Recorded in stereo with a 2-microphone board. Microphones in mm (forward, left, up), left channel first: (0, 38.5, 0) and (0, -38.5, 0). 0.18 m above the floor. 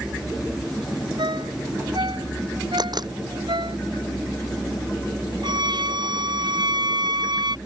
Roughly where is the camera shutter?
Right.